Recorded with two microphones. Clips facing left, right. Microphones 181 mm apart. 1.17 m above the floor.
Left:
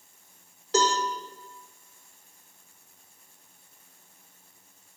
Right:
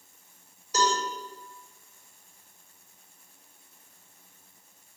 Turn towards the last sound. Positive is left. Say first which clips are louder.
# left 2 dB
turn(degrees=80)